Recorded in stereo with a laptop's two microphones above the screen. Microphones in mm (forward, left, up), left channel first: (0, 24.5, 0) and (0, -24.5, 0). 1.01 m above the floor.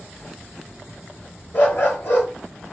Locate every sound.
1.5 s a dog barking: 40° left (ahead or behind), 1.1 m